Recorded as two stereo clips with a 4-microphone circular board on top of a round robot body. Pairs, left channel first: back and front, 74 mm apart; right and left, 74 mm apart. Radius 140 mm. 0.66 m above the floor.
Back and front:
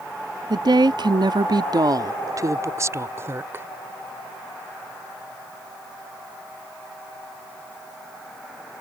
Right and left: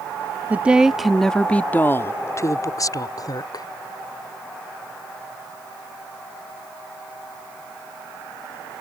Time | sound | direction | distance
0.5 | a woman speaking | 20° left | ?